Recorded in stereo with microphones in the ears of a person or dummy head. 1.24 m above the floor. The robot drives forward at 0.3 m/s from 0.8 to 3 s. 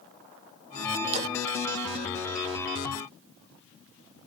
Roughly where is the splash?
Right.